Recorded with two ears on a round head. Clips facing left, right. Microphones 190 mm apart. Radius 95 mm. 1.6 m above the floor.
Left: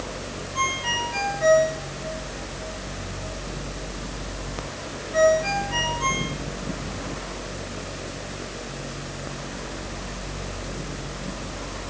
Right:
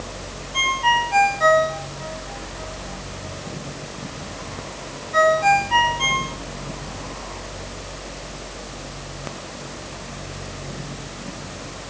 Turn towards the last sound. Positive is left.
turn(degrees=-80)